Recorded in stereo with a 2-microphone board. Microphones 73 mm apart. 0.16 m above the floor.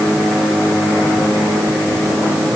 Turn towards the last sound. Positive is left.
No sound to turn to.